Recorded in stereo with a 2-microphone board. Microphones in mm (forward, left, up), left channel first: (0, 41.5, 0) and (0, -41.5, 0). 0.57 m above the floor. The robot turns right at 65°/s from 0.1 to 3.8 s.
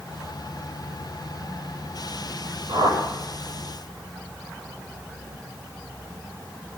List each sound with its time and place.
2.7 s a whoosh: 65° right (ahead or behind), 8.5 m; by 3.0 s 40° right (ahead or behind), 8.5 m